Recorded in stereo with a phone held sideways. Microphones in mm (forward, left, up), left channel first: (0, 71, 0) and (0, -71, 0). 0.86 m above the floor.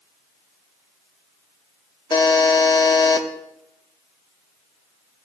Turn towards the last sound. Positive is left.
turn(degrees=30)  # may be behind; listen again after turning